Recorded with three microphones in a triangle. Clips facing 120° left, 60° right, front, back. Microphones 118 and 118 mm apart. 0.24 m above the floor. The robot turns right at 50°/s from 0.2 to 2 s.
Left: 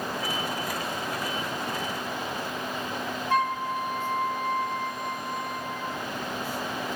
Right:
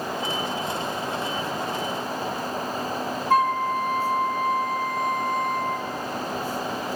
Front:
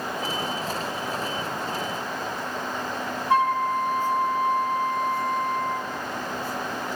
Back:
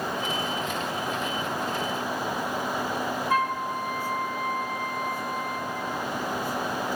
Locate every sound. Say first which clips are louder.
3.3 s a flute: right 5 dB, front 7 dB; 45° right, 0.7 m